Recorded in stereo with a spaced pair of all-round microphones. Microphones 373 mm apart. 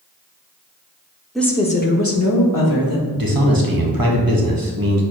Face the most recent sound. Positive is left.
turn(degrees=-65)  # may be behind; listen again after turning